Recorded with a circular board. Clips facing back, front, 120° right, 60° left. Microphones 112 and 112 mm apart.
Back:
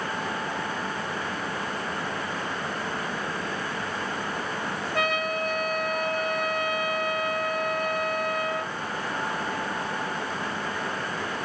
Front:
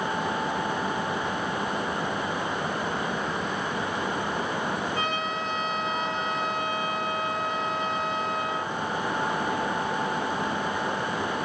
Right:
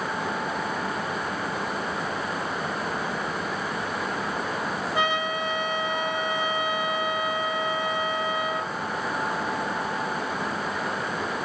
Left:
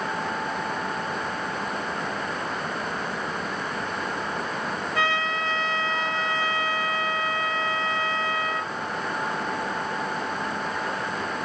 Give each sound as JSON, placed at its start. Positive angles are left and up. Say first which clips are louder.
{"t": 4.9, "sound": "a trumpet", "louder": "back 2 dB, even", "azimuth_deg": 170, "distance_m": 2.0}